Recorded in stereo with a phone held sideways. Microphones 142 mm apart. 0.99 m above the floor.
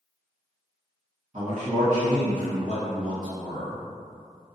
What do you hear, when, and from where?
1.3 s a man speaking: 55° right (ahead or behind), 1.6 m